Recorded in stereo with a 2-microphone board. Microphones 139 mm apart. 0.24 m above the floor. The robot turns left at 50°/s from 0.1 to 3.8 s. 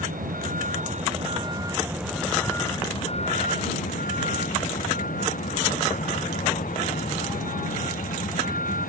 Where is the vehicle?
75° right; by 8.9 s 100° left.